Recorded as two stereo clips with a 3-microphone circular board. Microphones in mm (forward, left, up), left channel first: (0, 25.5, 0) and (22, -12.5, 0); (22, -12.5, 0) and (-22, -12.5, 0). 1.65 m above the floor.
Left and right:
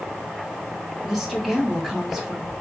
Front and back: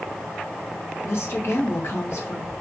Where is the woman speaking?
25° left, 3.5 m.